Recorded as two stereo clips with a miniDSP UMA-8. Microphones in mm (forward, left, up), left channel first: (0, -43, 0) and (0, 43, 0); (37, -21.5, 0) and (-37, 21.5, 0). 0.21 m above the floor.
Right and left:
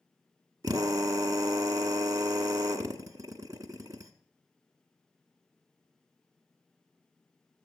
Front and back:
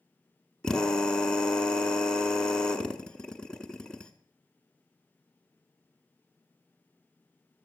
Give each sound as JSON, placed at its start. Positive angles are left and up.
{"t": 0.6, "sound": "a drill", "azimuth_deg": 50, "distance_m": 0.8}